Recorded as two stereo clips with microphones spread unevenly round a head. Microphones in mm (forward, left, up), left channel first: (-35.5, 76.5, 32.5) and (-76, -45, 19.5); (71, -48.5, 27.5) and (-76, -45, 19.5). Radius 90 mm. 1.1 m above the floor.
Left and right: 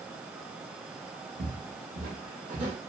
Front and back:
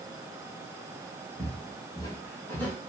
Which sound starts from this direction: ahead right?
Footsteps, at 1.4 s.